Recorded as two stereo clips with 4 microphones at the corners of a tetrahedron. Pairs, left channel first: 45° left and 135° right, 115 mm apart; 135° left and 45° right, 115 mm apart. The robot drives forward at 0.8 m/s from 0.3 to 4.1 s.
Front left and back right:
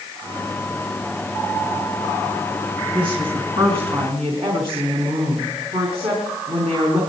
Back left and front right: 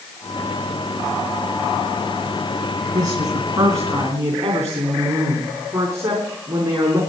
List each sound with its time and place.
2.9 s a woman speaking: 95° right, 4 m; by 7.0 s 110° right, 4 m